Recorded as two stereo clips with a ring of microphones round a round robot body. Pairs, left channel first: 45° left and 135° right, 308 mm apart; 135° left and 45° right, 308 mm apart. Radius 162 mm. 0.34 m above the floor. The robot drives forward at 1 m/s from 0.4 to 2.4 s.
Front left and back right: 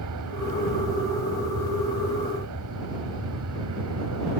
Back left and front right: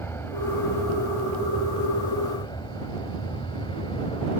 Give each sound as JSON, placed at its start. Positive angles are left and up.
{"t": 0.0, "sound": "an aircraft", "azimuth_deg": -145}